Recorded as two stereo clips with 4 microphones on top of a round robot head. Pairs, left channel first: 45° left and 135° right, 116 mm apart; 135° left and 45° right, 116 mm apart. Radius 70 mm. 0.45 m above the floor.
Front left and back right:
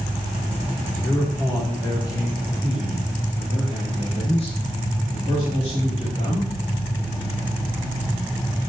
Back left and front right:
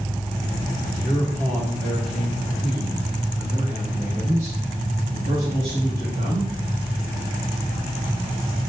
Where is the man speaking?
105° left, 1.5 m; by 6.5 s 5° left, 3.5 m.